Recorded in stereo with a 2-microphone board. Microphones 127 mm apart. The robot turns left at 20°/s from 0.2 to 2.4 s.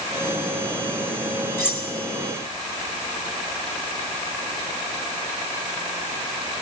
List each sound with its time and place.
1.6 s cutlery clinking: 20° left (ahead or behind), 1.5 m; by 1.9 s 10° left (ahead or behind), 1.5 m